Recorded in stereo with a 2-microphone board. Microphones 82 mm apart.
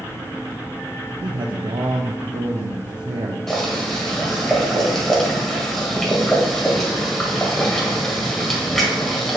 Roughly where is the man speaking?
Right.